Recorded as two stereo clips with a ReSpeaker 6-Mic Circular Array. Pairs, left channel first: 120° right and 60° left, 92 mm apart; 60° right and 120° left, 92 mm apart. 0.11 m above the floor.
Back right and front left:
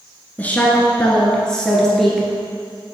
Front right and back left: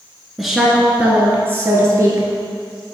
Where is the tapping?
I don't hear tapping.